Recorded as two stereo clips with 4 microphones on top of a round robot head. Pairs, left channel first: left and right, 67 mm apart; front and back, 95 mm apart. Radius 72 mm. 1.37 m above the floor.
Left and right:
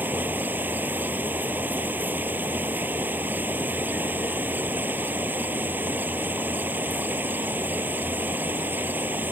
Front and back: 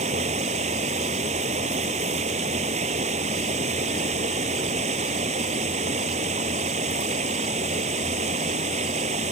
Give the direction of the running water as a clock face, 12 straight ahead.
5 o'clock.